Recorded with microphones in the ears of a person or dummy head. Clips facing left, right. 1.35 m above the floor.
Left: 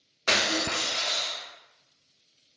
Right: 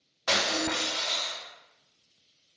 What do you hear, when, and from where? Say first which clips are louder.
0.3 s breaking glass: even; 45° left (ahead or behind), 1.5 m